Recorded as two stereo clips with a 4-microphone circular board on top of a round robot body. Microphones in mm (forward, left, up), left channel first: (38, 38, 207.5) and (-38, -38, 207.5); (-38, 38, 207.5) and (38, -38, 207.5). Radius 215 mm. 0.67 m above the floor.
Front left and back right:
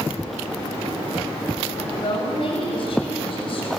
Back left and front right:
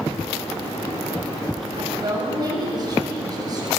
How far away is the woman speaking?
About 6.5 m.